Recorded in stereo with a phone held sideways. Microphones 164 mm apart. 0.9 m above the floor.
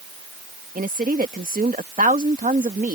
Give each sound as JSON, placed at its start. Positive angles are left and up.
{"t": 0.8, "sound": "a woman speaking", "side_deg": -55}